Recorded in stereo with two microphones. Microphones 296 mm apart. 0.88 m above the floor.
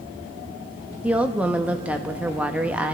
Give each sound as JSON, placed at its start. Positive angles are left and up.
{"t": 1.0, "sound": "a woman speaking", "side_deg": -5, "distance_m": 0.7}